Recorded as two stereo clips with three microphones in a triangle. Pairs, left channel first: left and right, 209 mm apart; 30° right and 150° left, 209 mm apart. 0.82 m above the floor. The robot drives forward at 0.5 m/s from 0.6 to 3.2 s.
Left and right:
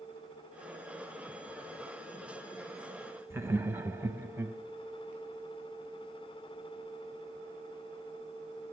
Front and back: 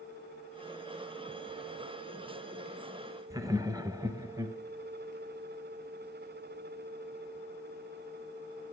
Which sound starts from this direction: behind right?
Laughter, at 3.3 s.